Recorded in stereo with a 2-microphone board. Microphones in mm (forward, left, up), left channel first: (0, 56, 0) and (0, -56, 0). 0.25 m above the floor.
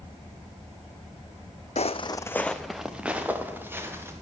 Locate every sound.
1.8 s footsteps: 70° left (ahead or behind), 0.6 m; by 4.1 s 20° right (ahead or behind), 2.5 m